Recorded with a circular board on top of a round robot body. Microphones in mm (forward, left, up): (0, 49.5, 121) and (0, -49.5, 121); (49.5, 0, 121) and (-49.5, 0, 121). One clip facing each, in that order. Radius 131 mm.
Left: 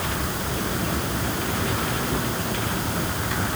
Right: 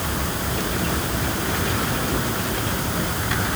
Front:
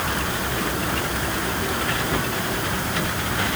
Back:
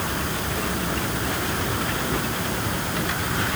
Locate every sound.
Only background noise.